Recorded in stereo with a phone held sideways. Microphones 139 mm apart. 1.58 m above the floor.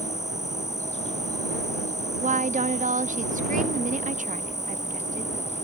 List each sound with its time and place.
0.0 s an insect: 55° left (ahead or behind)
2.2 s a woman speaking: 65° right (ahead or behind)